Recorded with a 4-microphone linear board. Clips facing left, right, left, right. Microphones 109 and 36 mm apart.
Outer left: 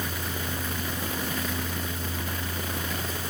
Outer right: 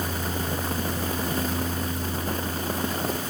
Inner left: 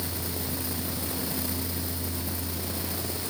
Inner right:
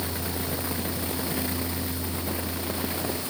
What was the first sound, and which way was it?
Only background noise.